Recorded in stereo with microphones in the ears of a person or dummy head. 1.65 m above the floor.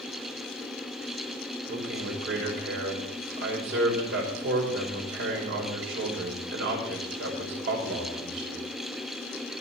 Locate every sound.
1.7 s a man speaking: 70° right (ahead or behind), 5.5 m